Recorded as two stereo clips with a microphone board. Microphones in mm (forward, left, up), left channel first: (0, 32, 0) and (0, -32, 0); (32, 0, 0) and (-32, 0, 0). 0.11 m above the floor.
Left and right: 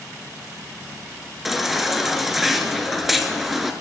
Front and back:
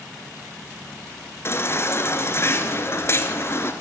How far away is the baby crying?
About 1.5 m.